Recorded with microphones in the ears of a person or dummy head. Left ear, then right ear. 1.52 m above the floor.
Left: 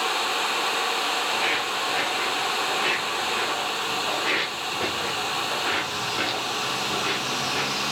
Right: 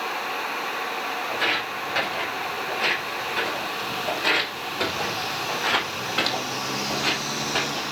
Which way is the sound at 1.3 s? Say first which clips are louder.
Left 1 dB; 75° right (ahead or behind).